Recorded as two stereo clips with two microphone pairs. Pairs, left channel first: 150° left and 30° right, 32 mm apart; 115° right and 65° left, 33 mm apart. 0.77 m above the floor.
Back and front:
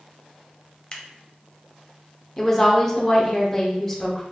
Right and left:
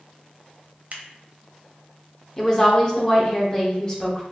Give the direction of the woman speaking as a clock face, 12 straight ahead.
5 o'clock.